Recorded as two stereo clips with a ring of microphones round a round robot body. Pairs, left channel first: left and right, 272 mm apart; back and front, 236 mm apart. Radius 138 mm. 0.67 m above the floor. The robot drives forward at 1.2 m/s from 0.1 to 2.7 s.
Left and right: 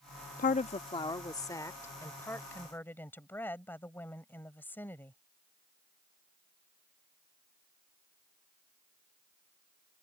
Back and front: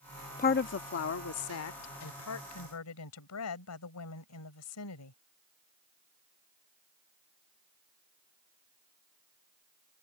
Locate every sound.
0.4 s a woman speaking: 140° left; by 5.2 s 175° left